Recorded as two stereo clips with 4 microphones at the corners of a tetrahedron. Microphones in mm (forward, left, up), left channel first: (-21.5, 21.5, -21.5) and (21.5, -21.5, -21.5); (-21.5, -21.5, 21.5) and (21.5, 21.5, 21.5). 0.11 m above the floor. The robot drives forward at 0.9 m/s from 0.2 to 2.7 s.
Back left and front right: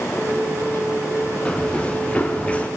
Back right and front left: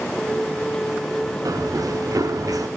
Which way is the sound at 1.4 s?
60° left.